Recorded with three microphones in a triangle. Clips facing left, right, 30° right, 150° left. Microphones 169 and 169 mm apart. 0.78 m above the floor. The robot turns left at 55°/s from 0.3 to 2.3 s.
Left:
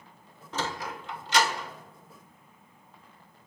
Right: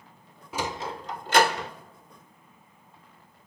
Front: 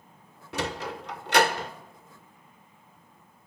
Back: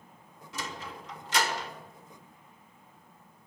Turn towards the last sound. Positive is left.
turn(degrees=-105)